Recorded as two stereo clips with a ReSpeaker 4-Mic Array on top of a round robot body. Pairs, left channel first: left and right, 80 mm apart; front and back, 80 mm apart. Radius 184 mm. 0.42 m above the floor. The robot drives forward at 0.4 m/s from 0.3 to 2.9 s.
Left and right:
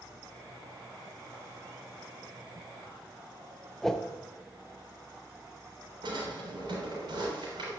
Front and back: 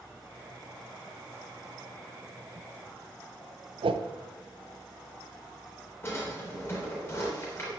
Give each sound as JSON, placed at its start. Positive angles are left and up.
{"t": 3.8, "sound": "a whoosh", "azimuth_deg": 175, "distance_m": 0.6}
{"t": 6.0, "sound": "a drawer", "azimuth_deg": -60, "distance_m": 3.5}